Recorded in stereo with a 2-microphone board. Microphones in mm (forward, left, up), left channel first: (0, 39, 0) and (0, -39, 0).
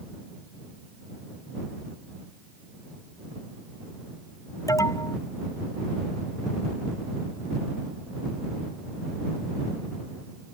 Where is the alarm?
45° left (ahead or behind).